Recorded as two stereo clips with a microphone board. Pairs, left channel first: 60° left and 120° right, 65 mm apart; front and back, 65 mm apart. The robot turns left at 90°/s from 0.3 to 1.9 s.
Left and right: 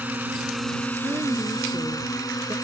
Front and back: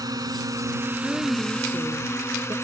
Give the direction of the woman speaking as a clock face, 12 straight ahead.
3 o'clock.